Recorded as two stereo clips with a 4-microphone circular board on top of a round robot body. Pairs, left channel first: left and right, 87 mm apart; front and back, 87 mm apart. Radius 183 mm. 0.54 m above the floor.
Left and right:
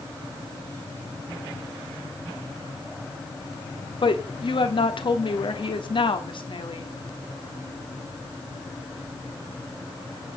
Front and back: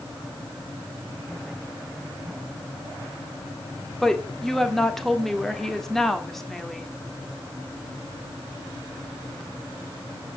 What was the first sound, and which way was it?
A woman speaking, 85° left.